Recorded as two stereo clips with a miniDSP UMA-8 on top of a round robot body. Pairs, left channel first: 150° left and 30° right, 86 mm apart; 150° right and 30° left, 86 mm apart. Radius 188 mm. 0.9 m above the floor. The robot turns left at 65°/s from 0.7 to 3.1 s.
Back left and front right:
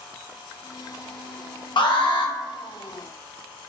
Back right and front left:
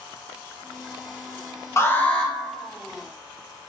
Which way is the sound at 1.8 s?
155° left.